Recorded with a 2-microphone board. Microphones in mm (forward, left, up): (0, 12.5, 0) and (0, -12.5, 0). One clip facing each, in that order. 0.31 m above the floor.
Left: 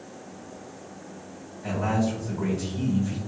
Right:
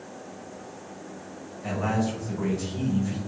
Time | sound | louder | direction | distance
1.6 | a man speaking | left 1 dB | 10° right (ahead or behind) | 1.4 m